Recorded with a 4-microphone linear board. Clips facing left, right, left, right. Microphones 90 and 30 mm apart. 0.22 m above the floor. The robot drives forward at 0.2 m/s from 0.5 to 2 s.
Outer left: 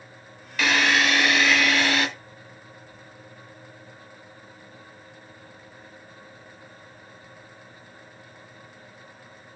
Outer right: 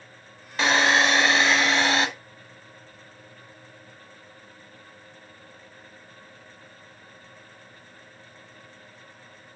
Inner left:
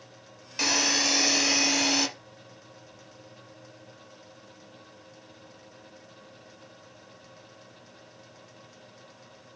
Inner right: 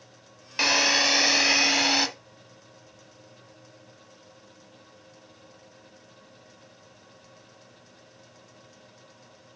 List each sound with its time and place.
0.6 s a drill: 30° right (ahead or behind), 1.6 m